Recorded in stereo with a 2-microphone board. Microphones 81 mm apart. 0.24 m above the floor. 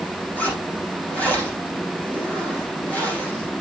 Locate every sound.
0.4 s a zipper: 20° left (ahead or behind), 6 m